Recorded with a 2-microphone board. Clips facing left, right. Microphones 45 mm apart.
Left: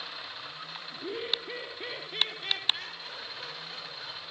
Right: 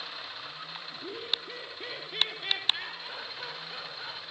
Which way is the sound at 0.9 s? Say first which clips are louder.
Left 3 dB; 35° left (ahead or behind).